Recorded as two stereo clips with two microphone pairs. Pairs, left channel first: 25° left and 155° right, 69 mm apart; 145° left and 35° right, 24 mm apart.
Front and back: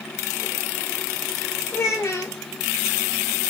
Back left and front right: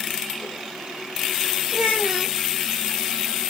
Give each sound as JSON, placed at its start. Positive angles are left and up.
{"t": 1.7, "sound": "a child speaking", "azimuth_deg": 20, "distance_m": 0.6}